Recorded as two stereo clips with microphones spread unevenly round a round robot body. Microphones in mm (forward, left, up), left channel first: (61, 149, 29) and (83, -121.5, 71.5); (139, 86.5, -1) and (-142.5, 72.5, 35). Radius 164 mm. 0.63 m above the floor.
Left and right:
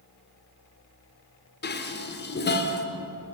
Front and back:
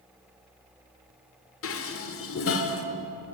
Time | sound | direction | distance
1.6 | dishes clattering | 45° left | 1.1 m